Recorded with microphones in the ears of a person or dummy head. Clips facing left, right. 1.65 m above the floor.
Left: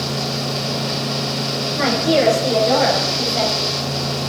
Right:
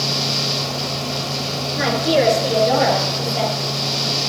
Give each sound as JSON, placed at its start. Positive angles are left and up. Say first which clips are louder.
{"t": 1.8, "sound": "a woman speaking", "louder": "left 1 dB", "side_deg": -10, "distance_m": 5.0}